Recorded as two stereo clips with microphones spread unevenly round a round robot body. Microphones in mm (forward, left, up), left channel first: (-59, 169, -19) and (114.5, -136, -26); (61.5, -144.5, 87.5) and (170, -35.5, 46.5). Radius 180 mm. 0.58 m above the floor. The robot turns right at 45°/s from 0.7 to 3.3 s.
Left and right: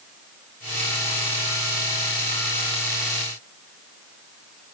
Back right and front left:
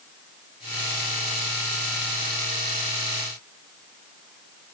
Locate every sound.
Only background noise.